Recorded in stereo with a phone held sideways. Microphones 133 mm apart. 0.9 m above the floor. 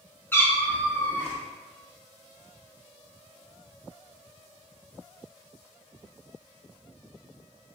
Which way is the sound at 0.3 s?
15° left (ahead or behind).